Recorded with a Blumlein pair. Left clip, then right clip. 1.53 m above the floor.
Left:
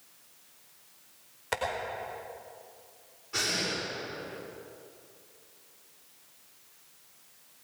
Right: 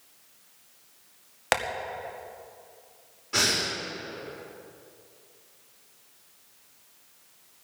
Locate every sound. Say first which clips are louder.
1.5 s tapping: right 7 dB; 50° right, 2 m
3.3 s breathing: right 5 dB; 35° right, 4.5 m